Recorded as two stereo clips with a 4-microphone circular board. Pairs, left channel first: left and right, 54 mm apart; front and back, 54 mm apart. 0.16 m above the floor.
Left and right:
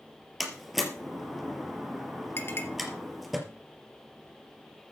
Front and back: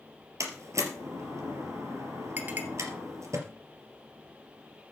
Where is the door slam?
175° right, 3 m.